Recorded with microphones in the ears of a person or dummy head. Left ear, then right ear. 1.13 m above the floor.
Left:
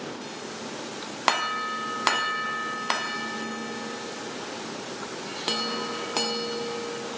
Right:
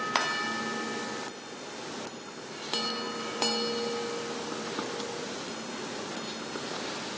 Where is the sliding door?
I don't hear a sliding door.